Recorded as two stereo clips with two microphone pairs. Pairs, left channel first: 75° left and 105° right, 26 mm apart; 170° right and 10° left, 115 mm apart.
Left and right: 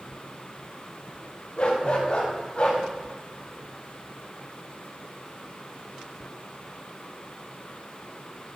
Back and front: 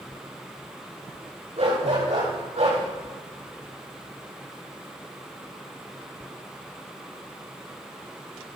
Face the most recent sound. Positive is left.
turn(degrees=25)